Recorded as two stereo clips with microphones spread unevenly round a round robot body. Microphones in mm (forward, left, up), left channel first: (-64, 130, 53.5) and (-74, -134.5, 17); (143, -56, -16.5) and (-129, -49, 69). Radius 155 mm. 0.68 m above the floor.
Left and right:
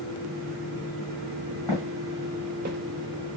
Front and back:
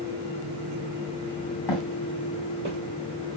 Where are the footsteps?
20° left, 1.0 m; by 2.8 s 145° right, 1.0 m.